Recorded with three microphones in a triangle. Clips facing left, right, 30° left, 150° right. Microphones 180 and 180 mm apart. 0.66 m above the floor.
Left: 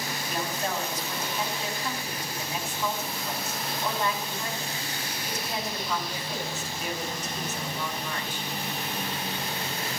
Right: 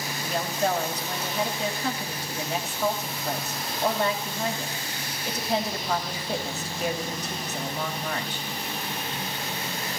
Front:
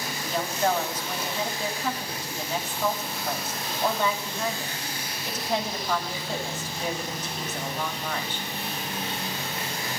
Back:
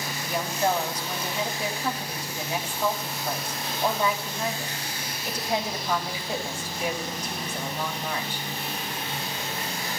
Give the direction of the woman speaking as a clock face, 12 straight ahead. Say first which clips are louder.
Right 6 dB, even; 2 o'clock.